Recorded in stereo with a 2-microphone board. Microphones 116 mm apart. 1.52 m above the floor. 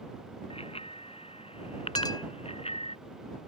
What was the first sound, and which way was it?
A bicycle bell, 60° left (ahead or behind).